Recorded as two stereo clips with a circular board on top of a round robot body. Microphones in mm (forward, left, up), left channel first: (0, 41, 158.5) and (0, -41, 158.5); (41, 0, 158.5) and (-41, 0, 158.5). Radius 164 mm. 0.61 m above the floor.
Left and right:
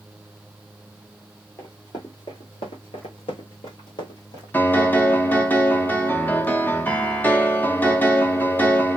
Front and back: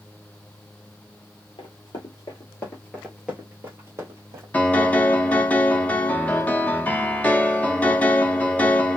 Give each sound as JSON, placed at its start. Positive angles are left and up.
{"t": 1.6, "sound": "running footsteps", "azimuth_deg": 30, "distance_m": 1.0}
{"t": 4.5, "sound": "a piano", "azimuth_deg": 50, "distance_m": 1.2}